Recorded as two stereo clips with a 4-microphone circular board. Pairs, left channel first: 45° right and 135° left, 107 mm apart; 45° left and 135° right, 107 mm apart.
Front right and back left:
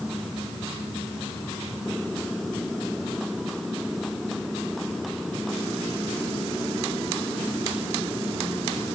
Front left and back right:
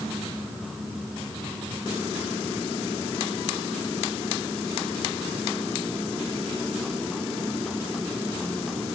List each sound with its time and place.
Only background noise.